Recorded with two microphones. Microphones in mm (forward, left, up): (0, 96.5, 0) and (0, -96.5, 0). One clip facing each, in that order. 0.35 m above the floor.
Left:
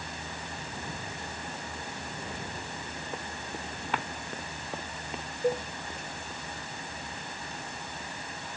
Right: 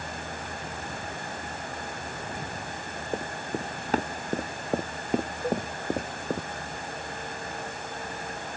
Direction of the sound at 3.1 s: 35° right (ahead or behind).